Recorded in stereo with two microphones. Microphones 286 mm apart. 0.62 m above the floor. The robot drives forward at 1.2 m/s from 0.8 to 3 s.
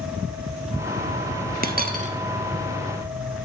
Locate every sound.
1.6 s a dropped coin: 30° right (ahead or behind), 0.6 m; by 2.1 s 25° right (ahead or behind), 0.7 m